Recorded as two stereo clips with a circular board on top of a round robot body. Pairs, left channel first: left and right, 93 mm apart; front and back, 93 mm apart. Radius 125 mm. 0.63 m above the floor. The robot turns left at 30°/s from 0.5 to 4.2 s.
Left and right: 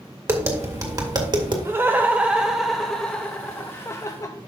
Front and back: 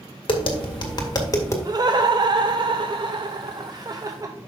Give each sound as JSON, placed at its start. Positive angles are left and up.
{"t": 0.3, "sound": "tapping", "azimuth_deg": -30, "distance_m": 1.9}
{"t": 1.6, "sound": "laughter", "azimuth_deg": -145, "distance_m": 0.8}